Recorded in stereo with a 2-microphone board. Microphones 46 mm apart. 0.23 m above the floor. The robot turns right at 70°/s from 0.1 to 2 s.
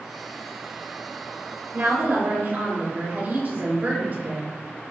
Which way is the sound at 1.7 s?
60° right (ahead or behind).